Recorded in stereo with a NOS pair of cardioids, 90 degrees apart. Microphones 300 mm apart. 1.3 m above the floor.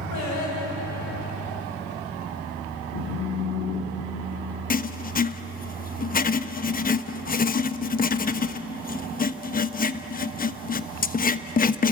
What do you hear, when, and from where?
0.1 s singing: 65° left, 8.5 m
2.9 s a phone buzzing: 45° left, 3.5 m
4.7 s writing: 30° left, 1.1 m